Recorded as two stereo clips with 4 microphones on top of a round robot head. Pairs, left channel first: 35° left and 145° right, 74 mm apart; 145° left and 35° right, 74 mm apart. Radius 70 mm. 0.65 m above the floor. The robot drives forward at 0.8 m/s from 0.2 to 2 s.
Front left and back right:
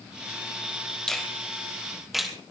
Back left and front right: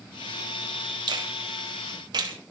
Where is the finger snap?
45° right, 3.5 m; by 2.3 s 55° right, 3 m.